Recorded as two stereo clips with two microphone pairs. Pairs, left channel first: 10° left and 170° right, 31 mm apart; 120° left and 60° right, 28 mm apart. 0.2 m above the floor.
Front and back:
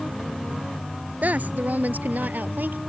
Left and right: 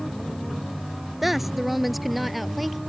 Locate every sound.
1.2 s a woman speaking: 140° right; by 2.8 s 150° right